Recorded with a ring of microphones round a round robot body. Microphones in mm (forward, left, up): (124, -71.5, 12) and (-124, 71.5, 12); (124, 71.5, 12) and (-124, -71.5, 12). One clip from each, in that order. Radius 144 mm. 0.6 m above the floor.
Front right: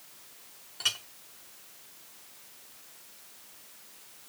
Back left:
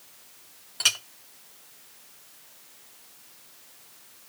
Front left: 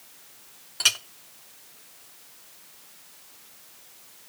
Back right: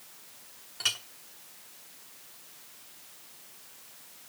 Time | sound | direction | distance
0.8 | a clink | 90° left | 0.8 m